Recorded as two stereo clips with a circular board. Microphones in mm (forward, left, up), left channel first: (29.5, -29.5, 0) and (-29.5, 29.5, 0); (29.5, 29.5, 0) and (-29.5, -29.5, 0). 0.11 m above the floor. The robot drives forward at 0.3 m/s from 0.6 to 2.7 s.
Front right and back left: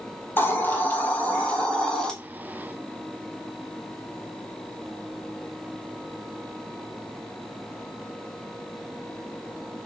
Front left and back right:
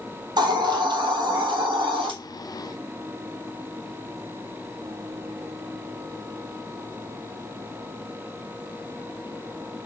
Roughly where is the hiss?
Right.